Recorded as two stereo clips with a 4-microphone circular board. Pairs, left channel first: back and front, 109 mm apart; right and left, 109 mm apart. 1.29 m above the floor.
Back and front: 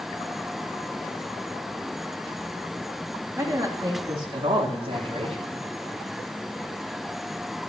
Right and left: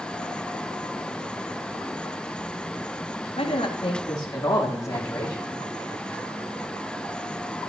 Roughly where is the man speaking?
Ahead right.